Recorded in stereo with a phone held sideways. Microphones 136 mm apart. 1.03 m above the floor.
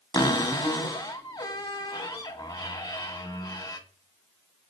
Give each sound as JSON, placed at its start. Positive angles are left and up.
{"t": 0.1, "sound": "a cupboard door", "side_deg": 30, "distance_m": 1.6}